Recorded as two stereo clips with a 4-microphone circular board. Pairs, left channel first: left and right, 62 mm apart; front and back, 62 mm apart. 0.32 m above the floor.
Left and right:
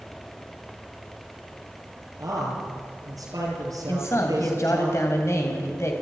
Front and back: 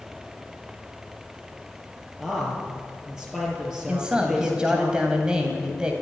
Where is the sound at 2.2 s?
100° right, 6.5 m.